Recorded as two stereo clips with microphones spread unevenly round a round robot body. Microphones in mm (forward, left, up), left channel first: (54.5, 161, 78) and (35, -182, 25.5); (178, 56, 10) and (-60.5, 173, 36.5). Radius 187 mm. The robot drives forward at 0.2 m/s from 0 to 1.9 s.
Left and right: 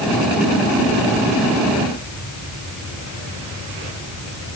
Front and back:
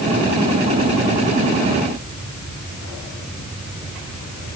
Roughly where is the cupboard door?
I don't hear a cupboard door.